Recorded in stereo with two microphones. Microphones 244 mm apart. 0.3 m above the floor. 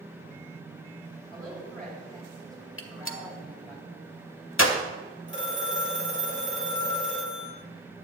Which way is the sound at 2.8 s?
55° left (ahead or behind).